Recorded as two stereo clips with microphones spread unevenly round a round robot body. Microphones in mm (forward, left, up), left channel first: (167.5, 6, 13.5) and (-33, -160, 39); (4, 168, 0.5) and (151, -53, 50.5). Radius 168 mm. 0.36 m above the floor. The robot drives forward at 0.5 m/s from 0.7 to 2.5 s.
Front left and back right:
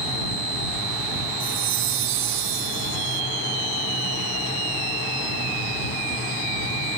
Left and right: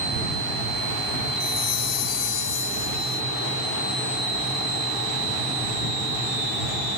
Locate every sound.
1.4 s a chime: 175° left